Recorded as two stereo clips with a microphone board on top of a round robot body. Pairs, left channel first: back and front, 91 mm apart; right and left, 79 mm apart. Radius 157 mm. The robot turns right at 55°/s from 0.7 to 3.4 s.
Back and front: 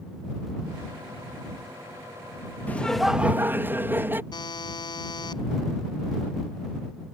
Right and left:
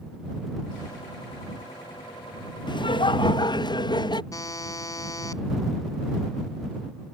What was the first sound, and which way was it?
Laughter, 110° right.